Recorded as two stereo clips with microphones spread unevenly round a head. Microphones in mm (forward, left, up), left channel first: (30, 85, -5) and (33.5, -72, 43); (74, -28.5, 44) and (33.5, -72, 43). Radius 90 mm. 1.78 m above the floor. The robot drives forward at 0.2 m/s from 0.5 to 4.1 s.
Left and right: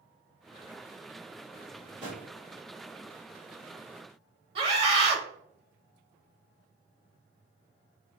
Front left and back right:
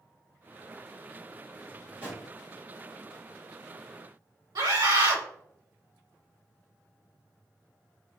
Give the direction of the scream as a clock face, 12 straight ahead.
5 o'clock.